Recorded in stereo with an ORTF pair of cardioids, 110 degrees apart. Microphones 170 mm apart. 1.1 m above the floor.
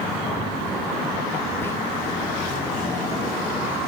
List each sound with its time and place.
1.6 s whispering: 15° left, 0.9 m